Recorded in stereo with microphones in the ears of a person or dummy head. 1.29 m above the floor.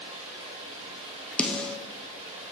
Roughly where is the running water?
Right.